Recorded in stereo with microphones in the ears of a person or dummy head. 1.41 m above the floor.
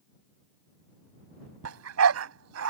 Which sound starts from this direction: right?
A dog barking, at 1.6 s.